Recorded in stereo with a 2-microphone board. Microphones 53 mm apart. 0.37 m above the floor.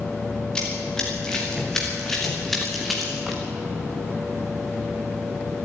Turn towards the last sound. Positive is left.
turn(degrees=0)  # may be behind; listen again after turning